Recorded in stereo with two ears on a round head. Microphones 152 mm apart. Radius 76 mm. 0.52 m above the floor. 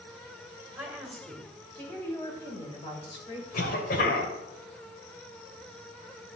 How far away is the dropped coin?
I don't hear a dropped coin.